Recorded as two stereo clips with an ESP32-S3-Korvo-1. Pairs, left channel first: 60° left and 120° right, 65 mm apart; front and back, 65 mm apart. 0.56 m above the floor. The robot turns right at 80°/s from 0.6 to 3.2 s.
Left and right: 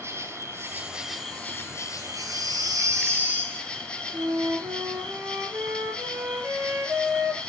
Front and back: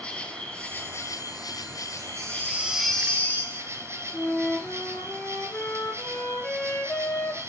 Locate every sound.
0.0 s an insect: 75° right, 1.3 m; by 7.5 s 135° left, 1.3 m
2.0 s a baby crying: 160° right, 2.5 m; by 3.7 s 60° right, 2.5 m
4.1 s a flute: 70° right, 3 m